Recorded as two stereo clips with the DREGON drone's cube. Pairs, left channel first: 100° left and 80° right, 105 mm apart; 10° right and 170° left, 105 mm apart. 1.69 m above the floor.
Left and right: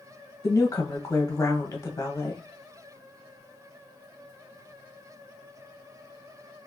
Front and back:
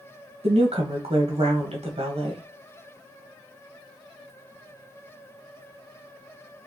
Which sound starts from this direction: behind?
A woman speaking, at 0.4 s.